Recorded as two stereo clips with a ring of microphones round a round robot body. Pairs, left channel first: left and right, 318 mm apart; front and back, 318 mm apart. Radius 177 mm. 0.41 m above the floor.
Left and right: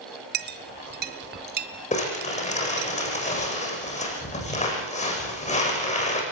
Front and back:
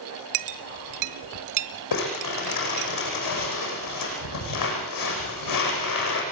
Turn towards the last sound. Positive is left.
turn(degrees=20)